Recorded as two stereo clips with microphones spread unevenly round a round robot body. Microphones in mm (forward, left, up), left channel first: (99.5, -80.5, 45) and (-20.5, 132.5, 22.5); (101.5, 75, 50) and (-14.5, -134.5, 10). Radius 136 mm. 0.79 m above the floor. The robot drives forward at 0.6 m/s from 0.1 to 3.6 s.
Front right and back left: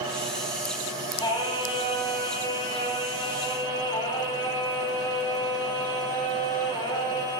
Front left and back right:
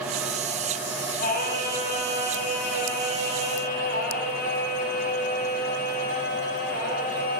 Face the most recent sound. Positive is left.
turn(degrees=15)